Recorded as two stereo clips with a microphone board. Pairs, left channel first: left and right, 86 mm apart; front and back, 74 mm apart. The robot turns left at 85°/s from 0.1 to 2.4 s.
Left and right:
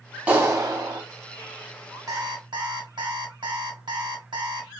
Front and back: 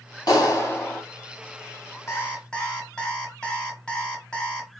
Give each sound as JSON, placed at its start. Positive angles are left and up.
{"t": 0.3, "sound": "a clap", "azimuth_deg": -20, "distance_m": 1.7}
{"t": 2.1, "sound": "an alarm clock", "azimuth_deg": -50, "distance_m": 1.3}